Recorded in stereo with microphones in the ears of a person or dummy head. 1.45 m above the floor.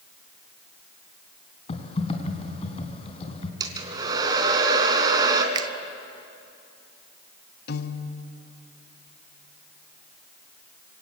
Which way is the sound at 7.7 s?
55° left (ahead or behind).